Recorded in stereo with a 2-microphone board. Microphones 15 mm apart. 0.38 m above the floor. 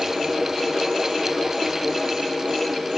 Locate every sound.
Only background noise.